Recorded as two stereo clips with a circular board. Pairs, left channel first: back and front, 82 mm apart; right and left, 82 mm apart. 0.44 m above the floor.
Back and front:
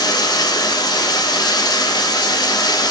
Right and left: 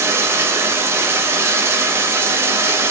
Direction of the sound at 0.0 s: 150° left.